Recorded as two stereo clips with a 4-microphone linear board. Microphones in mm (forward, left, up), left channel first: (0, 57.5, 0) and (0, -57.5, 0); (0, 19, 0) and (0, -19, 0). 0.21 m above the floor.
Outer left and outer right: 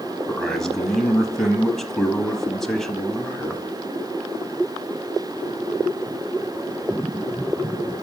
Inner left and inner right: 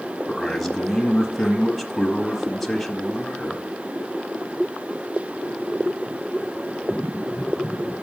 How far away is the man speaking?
About 1.0 m.